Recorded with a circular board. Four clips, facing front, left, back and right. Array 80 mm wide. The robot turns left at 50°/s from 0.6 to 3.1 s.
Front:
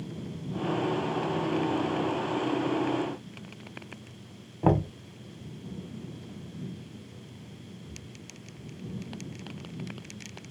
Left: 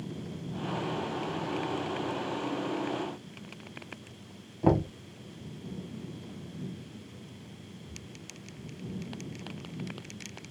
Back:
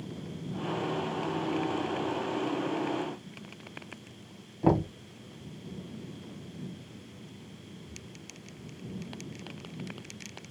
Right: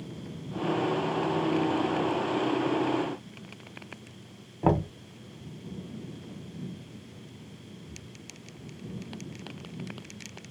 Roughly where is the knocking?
Ahead right.